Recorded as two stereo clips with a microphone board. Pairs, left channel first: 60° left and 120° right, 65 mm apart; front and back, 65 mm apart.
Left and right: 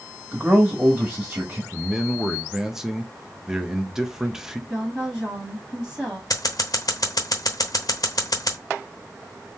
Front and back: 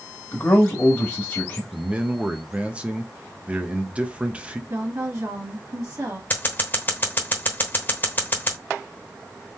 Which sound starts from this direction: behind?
A man speaking, at 1.7 s.